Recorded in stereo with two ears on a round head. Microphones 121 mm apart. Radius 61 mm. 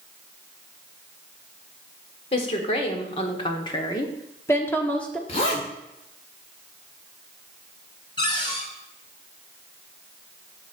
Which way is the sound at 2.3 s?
45° left (ahead or behind).